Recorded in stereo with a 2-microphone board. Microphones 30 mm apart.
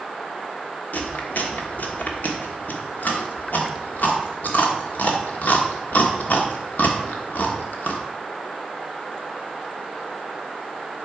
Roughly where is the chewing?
Left.